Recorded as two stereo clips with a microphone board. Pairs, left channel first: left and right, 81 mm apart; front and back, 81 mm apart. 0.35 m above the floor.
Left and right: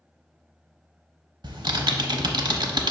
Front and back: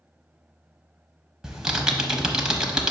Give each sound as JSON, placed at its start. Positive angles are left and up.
{"t": 1.4, "sound": "typing on a keyboard", "azimuth_deg": -100, "distance_m": 0.8}